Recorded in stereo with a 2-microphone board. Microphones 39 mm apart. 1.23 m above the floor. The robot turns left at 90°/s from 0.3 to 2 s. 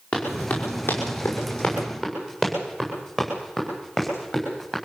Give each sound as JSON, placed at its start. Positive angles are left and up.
{"t": 0.1, "sound": "running footsteps", "side_deg": 40, "distance_m": 7.5}